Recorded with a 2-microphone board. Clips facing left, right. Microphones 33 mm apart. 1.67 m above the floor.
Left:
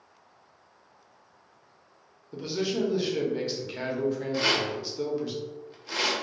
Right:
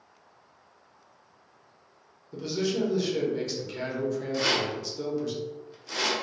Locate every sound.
2.3 s a man speaking: 15° left (ahead or behind), 0.6 m
4.3 s a rattle: 20° left (ahead or behind), 0.6 m